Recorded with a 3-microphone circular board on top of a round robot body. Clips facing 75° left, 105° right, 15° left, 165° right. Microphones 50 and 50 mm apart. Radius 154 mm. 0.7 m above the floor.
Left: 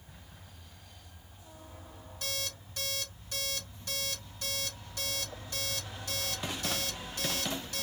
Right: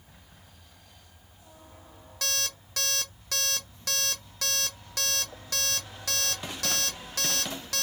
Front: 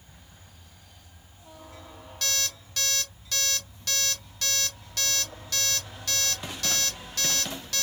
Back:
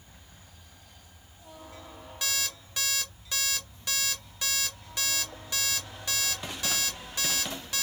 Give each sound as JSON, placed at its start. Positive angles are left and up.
{"t": 2.2, "sound": "an alarm clock", "azimuth_deg": -90, "distance_m": 0.6}